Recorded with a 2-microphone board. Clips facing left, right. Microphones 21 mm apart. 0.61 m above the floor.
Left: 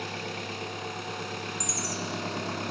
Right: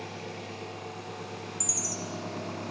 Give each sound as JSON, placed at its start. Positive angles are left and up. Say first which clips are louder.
{"t": 0.0, "sound": "an engine running", "louder": "left 5 dB", "side_deg": 80, "distance_m": 2.0}
{"t": 1.6, "sound": "a chime", "louder": "even", "side_deg": -10, "distance_m": 3.5}